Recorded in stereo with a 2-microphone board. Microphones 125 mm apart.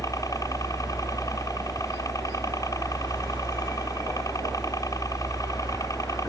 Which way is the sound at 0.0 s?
30° left (ahead or behind).